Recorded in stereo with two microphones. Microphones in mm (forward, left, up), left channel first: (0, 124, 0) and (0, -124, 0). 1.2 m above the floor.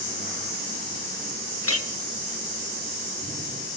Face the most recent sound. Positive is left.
turn(degrees=65)  # may be behind; listen again after turning